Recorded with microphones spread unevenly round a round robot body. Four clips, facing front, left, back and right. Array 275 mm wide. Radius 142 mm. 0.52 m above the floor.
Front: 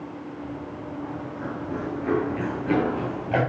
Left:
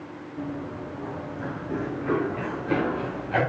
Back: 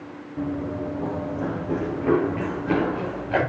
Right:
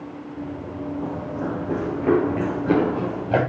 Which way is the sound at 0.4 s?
175° right.